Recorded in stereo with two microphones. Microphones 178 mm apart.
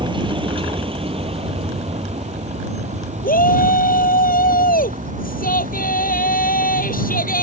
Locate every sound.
0.0 s a vehicle: 25° right (ahead or behind); by 7.4 s 50° right (ahead or behind)
3.2 s a shout: 55° left (ahead or behind)